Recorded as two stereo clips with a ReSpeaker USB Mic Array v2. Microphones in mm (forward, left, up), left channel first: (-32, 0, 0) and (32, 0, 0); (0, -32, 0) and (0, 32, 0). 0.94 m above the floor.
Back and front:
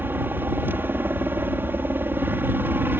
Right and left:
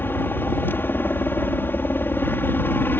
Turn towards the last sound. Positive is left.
turn(degrees=-45)